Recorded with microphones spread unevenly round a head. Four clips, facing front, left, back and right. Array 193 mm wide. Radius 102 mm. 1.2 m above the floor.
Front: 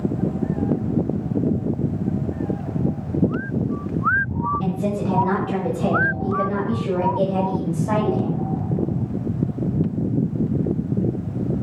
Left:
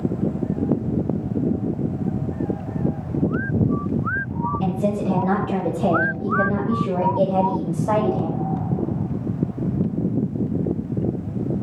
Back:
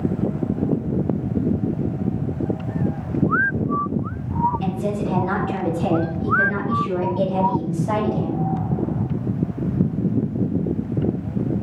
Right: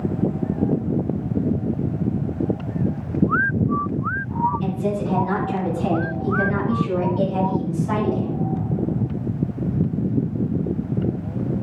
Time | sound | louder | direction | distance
4.6 | a woman speaking | left 1 dB, even | 65° left | 7.5 m